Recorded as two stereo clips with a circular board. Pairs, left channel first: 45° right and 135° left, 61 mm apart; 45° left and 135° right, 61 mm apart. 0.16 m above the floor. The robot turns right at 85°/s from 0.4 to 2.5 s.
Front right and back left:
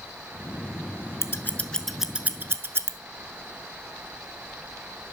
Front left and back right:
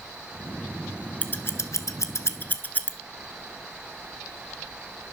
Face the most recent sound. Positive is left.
turn(degrees=95)